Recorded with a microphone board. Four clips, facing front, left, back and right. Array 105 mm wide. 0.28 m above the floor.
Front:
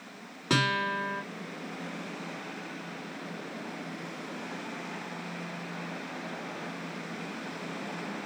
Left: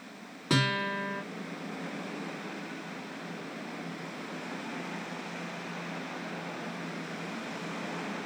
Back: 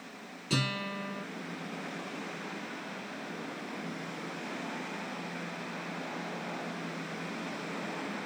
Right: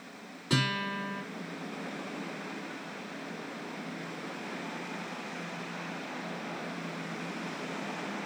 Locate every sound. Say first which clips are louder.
0.5 s a guitar: left 2 dB, front 6 dB; 30° left, 3.5 m